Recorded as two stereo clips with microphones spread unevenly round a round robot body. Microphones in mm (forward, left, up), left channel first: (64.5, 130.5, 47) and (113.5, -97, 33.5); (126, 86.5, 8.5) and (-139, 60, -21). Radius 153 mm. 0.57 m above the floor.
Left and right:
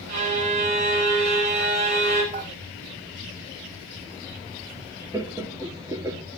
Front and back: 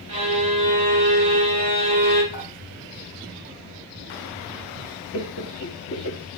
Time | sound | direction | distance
0.1 | a violin | 100° right | 2 m
2.3 | dishes clattering | 20° right | 2.5 m
5.1 | laughter | 10° right | 1.0 m